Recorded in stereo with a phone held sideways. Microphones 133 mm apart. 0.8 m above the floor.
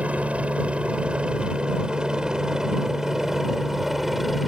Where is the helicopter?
10° right (ahead or behind); by 4.5 s centre (ahead or behind).